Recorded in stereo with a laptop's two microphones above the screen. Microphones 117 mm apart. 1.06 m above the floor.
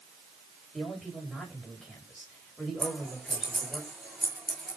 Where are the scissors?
Centre (ahead or behind), 6.5 m.